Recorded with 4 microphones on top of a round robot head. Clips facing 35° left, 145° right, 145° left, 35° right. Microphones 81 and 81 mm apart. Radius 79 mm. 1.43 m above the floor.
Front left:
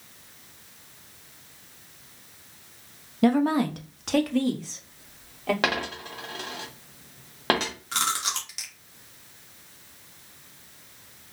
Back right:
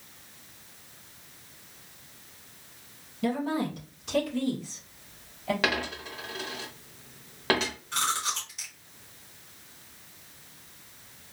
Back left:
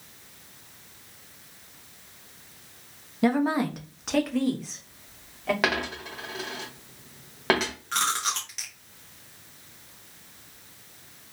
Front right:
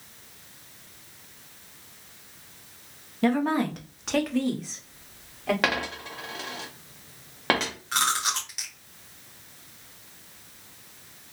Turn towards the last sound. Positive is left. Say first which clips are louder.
# front left 1 dB, front right 2 dB
turn(degrees=50)